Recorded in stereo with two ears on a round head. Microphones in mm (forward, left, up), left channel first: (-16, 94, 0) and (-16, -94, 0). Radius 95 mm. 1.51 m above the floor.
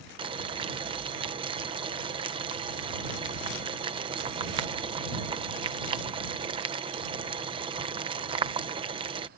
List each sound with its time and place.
0.2 s boiling: 25° right (ahead or behind)